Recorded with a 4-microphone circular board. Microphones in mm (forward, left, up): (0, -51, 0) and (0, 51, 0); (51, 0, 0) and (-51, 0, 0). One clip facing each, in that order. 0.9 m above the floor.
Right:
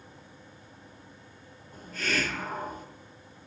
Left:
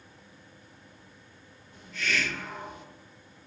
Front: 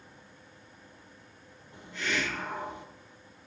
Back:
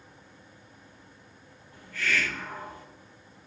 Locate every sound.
1.7 s a hiss: 60° right, 0.6 m